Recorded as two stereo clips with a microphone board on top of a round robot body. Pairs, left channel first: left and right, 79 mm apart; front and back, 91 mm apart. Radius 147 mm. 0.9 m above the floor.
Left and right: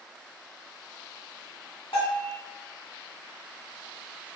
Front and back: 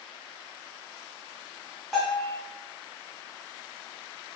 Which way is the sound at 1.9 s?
95° left.